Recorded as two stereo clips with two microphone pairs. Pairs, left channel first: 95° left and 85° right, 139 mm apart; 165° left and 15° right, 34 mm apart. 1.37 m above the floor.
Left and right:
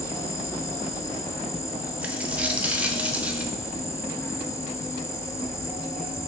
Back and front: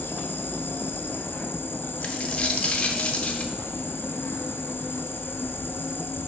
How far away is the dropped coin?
About 0.8 m.